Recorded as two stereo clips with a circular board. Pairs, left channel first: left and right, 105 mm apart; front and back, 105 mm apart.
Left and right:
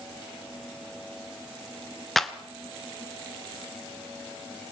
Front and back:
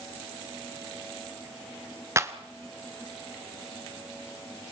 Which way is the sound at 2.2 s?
175° left.